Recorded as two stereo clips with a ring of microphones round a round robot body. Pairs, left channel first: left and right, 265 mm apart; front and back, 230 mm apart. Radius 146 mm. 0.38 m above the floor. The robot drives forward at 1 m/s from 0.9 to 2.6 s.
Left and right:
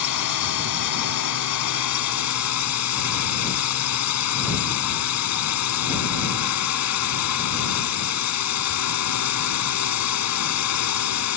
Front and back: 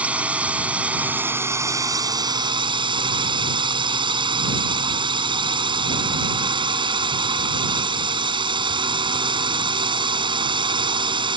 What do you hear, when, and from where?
0.0 s a drone: 95° left; by 11.4 s 110° left